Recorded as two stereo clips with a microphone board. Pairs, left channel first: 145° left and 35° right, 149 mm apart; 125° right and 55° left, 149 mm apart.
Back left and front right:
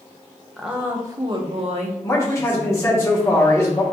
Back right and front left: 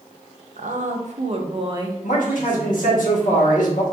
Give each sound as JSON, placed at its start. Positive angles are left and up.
{"t": 0.6, "sound": "a woman speaking", "azimuth_deg": 55, "distance_m": 0.8}
{"t": 2.0, "sound": "a man speaking", "azimuth_deg": -145, "distance_m": 1.3}